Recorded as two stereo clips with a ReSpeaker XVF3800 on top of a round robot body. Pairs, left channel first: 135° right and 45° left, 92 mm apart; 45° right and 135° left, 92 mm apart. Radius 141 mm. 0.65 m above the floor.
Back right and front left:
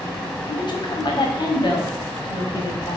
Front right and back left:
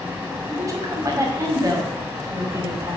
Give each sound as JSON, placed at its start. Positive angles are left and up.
{"t": 0.5, "sound": "a woman speaking", "azimuth_deg": -170, "distance_m": 1.8}